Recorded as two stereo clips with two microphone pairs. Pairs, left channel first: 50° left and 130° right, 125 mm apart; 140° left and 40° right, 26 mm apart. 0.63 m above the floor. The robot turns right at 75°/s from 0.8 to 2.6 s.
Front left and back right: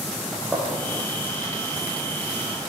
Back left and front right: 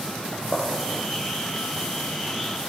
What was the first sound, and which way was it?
A gunshot, 140° left.